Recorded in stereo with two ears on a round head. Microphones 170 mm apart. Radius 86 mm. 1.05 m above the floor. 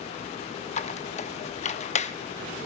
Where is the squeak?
35° left (ahead or behind), 0.7 m.